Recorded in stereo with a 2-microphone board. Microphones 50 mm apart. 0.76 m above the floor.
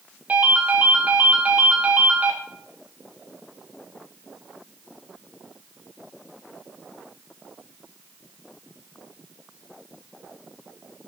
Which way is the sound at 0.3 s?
30° right (ahead or behind).